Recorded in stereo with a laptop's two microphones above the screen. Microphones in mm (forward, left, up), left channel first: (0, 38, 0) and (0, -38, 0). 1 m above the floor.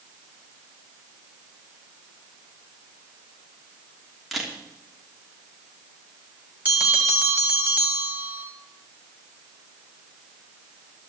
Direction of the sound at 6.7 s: 20° right (ahead or behind).